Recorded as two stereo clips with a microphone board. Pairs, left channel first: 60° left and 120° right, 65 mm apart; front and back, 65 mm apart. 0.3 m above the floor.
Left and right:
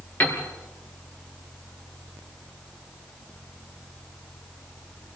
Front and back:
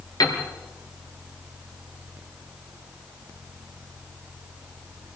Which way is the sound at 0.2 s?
Straight ahead.